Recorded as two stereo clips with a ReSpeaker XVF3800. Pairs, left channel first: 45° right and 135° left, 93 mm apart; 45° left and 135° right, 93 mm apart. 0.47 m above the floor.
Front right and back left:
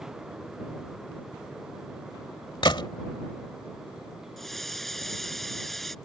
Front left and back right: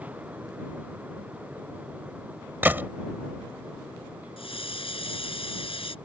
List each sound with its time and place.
2.6 s a gunshot: 70° right
4.4 s a hiss: 45° left